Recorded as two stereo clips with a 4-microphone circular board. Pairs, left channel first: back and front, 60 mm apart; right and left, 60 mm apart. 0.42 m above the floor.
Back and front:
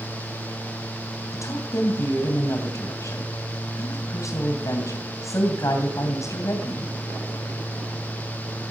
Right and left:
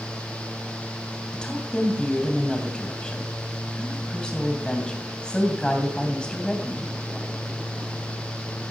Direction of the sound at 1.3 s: 160° right.